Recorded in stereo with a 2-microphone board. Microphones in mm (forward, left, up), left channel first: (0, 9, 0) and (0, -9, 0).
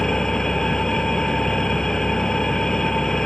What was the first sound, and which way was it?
An engine running, 45° left (ahead or behind).